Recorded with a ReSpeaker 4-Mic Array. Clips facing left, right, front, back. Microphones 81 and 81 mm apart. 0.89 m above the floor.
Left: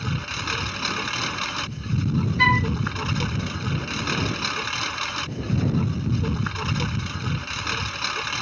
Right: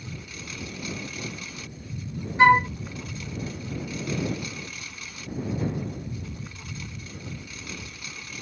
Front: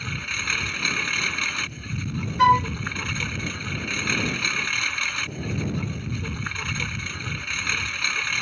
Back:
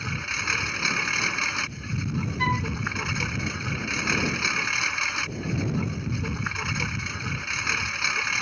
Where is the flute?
25° right.